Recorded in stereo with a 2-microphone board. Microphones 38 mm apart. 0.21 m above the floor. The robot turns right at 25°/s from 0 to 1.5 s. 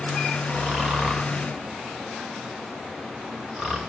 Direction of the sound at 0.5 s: 50° right (ahead or behind).